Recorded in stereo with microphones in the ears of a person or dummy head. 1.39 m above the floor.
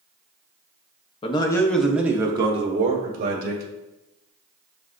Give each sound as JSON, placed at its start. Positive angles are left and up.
{"t": 1.2, "sound": "a man speaking", "side_deg": 35, "distance_m": 0.6}